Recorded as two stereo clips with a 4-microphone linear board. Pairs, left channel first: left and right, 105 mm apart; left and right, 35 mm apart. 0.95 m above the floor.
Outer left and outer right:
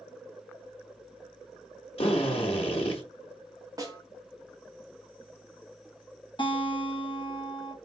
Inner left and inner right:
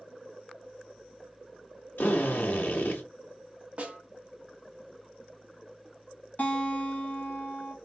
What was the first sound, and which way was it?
A drill, 70° left (ahead or behind).